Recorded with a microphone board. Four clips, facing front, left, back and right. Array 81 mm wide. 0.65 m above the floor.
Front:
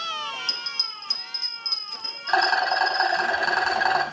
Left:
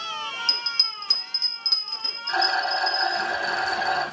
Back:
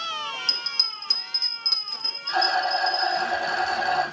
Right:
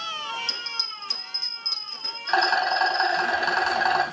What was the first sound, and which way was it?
A bell, 140° left.